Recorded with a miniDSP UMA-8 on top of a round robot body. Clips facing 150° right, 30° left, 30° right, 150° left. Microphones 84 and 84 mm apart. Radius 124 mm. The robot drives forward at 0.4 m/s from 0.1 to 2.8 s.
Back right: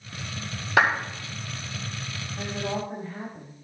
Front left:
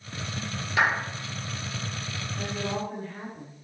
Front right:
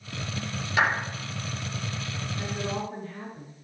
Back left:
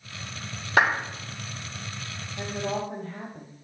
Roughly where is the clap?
Behind.